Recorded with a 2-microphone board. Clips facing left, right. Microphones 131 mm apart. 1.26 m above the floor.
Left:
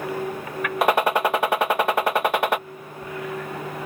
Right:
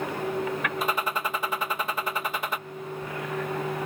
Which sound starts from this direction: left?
A gunshot, at 0.8 s.